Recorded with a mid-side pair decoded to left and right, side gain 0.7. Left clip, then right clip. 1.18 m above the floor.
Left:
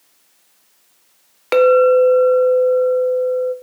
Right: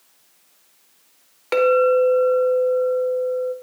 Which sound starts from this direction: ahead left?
A clink, at 1.5 s.